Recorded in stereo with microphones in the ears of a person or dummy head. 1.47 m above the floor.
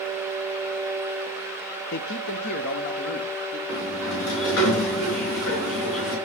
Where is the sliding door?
75° left (ahead or behind), 4.5 m.